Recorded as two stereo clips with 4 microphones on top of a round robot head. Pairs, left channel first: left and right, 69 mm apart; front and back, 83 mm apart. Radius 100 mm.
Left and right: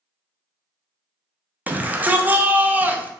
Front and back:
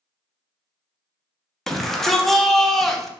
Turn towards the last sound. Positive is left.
turn(degrees=-85)